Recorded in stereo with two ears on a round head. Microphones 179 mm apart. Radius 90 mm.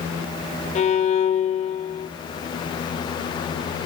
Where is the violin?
35° left (ahead or behind), 0.9 m.